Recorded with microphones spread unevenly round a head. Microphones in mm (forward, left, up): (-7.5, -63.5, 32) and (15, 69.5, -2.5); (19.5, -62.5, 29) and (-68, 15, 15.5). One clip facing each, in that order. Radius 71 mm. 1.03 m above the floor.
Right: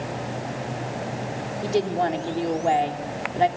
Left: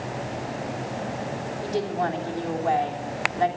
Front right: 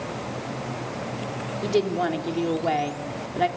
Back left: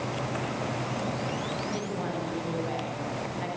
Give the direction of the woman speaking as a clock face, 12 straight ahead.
1 o'clock.